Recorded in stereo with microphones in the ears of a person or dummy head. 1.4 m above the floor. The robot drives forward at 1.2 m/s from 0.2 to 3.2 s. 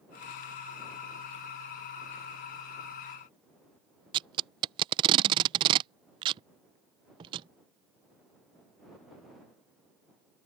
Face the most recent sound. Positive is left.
turn(degrees=-30)  # may be behind; listen again after turning